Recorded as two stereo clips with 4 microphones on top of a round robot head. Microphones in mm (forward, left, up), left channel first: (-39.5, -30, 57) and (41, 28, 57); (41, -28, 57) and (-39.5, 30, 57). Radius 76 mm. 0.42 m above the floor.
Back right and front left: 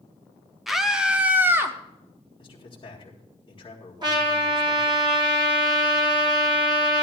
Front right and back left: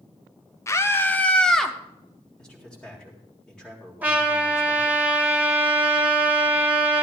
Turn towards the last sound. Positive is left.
turn(degrees=70)